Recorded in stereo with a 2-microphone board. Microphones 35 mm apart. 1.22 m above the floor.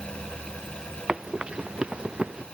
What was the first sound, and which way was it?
Running footsteps, 25° right (ahead or behind).